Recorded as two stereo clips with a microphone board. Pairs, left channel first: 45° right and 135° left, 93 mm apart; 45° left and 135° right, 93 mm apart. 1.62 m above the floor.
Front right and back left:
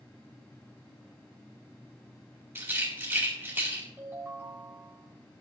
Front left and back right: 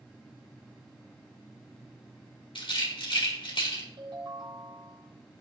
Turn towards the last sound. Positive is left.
turn(degrees=-160)